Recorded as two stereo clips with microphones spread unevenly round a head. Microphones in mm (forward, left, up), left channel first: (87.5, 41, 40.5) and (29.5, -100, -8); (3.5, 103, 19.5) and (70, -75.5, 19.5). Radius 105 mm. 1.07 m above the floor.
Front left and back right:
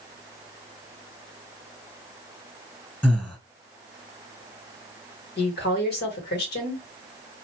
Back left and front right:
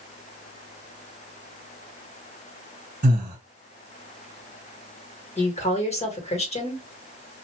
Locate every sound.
3.0 s breathing: 20° right, 1.6 m
5.4 s a woman speaking: 55° left, 1.7 m